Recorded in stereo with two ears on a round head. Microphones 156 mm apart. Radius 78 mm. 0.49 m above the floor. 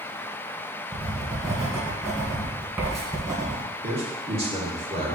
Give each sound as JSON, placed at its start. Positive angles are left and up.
{"t": 0.9, "sound": "writing", "side_deg": -15, "distance_m": 1.8}
{"t": 3.8, "sound": "a man speaking", "side_deg": -35, "distance_m": 1.2}